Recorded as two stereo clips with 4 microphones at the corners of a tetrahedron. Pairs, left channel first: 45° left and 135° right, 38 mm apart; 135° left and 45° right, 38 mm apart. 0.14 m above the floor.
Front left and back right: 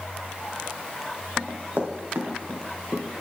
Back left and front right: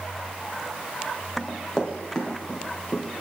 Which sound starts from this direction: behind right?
Running footsteps, at 1.4 s.